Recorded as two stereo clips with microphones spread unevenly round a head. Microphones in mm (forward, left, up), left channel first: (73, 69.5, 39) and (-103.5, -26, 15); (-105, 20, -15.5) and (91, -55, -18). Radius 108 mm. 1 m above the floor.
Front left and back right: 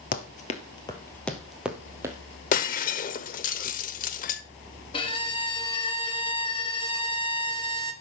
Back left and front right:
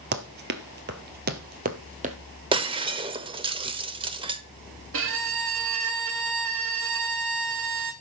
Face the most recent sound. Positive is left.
turn(degrees=-40)